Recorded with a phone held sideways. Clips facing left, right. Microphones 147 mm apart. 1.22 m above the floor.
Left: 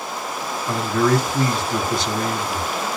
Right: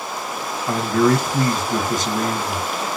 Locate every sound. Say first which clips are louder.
0.7 s a man speaking: right 2 dB; 45° right (ahead or behind), 1.2 m